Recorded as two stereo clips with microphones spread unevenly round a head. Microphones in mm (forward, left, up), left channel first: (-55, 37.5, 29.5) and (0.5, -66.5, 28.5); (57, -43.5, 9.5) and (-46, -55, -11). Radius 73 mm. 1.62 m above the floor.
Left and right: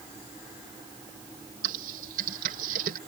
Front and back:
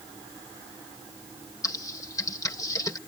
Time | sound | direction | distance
1.6 | typing on a keyboard | 50° right | ?